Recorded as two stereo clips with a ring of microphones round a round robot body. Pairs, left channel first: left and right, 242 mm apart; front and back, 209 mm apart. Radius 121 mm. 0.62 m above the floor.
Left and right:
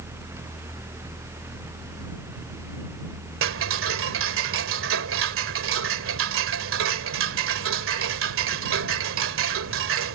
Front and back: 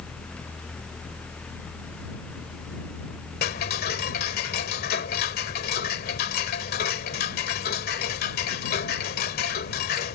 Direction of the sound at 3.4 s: 55° right.